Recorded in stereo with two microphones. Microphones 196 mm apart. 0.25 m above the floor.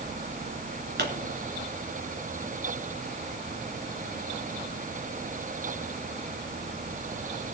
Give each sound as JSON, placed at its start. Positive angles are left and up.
{"t": 1.0, "sound": "a pop", "side_deg": -55, "distance_m": 2.5}